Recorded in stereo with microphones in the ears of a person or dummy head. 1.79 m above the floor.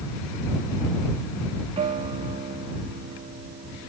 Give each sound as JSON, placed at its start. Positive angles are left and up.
{"t": 1.8, "sound": "a guitar", "side_deg": -30}